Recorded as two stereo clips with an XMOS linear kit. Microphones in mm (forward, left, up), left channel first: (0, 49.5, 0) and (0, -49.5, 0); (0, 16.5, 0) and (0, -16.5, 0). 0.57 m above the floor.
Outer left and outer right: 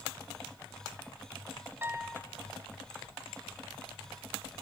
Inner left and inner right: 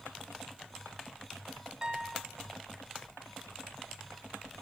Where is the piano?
20° right (ahead or behind), 0.7 m.